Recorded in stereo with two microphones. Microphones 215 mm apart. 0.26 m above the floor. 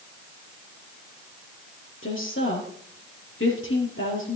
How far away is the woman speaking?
About 5 m.